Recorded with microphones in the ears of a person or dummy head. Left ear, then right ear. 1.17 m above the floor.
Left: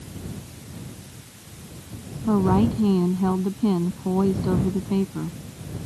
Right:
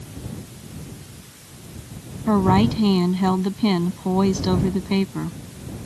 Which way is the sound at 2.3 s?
65° right (ahead or behind).